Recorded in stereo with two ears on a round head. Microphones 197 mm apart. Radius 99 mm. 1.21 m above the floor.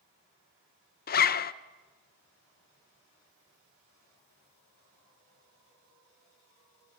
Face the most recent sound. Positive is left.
turn(degrees=40)  # may be behind; listen again after turning